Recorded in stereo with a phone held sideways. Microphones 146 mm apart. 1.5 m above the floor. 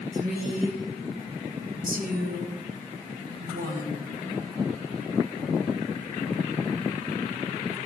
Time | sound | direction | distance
0.1 | a woman speaking | 80° right | 1.8 m